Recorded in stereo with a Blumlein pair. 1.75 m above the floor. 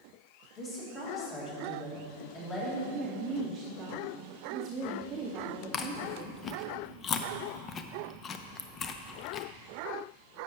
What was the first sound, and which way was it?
A woman speaking, 25° left.